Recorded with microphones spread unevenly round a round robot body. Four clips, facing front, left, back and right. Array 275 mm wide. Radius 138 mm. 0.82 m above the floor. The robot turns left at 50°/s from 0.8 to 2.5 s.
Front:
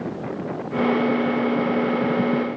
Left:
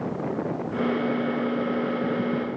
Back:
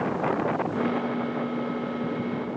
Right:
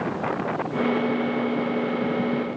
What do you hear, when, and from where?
Only background noise.